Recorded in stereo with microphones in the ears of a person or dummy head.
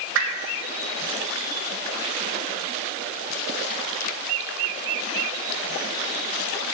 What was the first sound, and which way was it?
A whoosh, 75° right (ahead or behind).